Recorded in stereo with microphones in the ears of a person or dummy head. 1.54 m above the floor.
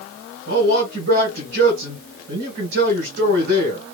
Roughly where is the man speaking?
Right.